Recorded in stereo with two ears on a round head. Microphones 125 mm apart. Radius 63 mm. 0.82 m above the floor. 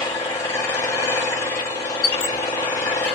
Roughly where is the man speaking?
No man speaking in this recording.